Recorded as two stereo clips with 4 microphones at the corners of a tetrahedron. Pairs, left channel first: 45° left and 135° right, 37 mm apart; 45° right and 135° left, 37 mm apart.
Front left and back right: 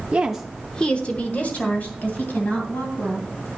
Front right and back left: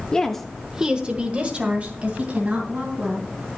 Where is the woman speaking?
95° right, 0.8 m; by 3.3 s 85° left, 3.5 m.